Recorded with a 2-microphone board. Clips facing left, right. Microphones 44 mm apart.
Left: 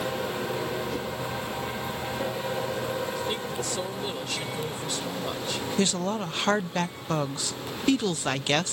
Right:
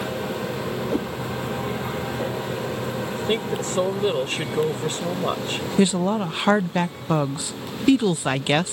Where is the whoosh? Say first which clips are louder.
Right 6 dB; 35° right (ahead or behind).